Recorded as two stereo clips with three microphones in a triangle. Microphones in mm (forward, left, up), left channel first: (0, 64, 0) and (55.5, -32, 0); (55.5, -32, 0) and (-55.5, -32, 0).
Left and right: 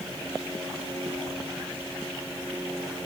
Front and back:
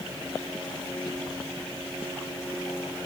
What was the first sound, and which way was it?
Only background noise.